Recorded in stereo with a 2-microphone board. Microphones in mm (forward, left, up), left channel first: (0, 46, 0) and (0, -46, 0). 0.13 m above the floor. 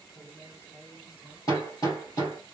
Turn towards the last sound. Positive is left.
turn(degrees=45)  # may be behind; listen again after turning